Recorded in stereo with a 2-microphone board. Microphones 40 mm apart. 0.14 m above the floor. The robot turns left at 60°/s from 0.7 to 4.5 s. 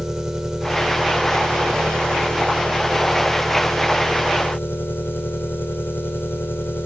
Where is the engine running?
15° right, 3.5 m; by 6.9 s 120° left, 3.5 m.